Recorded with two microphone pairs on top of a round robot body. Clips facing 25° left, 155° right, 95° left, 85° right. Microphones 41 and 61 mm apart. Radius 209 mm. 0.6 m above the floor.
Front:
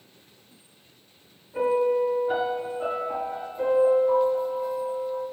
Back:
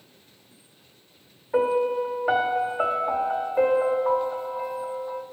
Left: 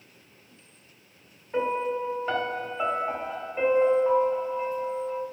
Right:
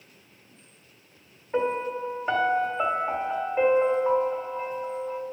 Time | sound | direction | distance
1.5 | a piano | 160° right | 1.7 m